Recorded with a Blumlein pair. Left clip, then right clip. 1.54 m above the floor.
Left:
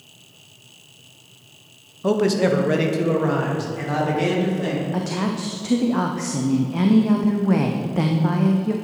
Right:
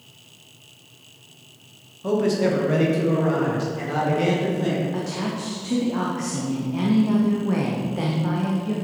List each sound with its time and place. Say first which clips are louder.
2.0 s a man speaking: left 2 dB; 25° left, 0.9 m; by 4.8 s 10° left, 2.5 m
4.9 s a woman speaking: left 2 dB; 20° left, 0.6 m